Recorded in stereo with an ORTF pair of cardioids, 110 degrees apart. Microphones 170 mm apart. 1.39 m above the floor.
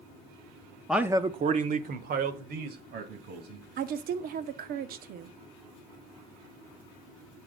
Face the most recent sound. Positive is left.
turn(degrees=-60)